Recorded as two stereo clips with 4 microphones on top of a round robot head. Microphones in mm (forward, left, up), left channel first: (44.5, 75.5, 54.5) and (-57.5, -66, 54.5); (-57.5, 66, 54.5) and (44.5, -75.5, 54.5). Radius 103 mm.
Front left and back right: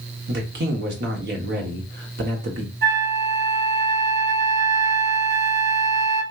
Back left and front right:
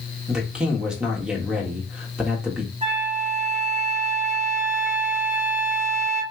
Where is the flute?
110° right, 1.8 m.